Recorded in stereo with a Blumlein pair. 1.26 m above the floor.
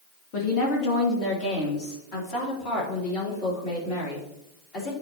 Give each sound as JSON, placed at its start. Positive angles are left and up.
{"t": 0.3, "sound": "a woman speaking", "azimuth_deg": 40, "distance_m": 2.0}